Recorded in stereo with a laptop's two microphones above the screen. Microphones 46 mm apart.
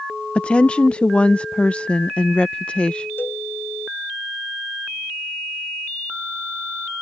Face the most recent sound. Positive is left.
turn(degrees=50)  # may be behind; listen again after turning